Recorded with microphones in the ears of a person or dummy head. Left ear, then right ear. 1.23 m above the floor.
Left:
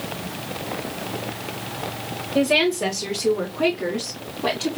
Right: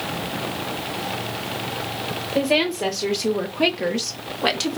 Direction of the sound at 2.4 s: Centre (ahead or behind).